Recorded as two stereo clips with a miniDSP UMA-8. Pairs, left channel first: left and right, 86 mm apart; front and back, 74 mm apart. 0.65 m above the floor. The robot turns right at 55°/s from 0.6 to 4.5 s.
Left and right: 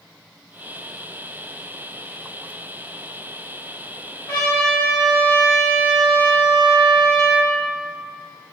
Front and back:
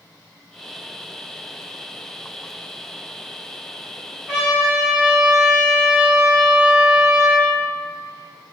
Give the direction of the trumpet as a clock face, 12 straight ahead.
9 o'clock.